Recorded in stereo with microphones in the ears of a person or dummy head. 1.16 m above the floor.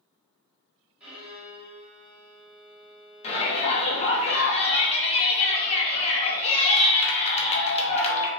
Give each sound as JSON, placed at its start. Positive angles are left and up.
{"t": 1.0, "sound": "a violin", "side_deg": -5, "distance_m": 1.3}
{"t": 3.2, "sound": "a shout", "side_deg": 30, "distance_m": 0.7}